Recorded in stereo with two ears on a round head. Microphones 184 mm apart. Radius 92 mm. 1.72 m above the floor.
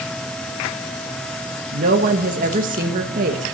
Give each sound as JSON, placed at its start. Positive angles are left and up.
{"t": 1.7, "sound": "a woman speaking", "side_deg": -40, "distance_m": 1.8}